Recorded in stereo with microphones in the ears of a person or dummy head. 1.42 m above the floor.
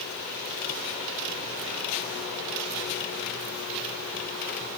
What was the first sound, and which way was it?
Only background noise.